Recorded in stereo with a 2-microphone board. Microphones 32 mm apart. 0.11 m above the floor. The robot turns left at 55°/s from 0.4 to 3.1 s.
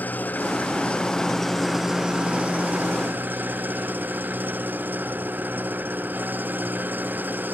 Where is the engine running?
65° left; by 7.5 s 80° right.